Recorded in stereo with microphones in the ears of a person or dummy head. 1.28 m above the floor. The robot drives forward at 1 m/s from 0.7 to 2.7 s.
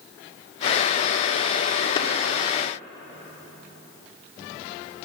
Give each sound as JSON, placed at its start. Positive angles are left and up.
{"t": 2.0, "sound": "a clap", "side_deg": 35, "distance_m": 1.0}